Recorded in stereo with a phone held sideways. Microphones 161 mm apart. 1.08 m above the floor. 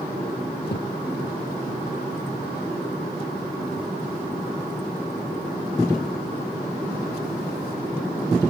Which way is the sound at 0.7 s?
85° left.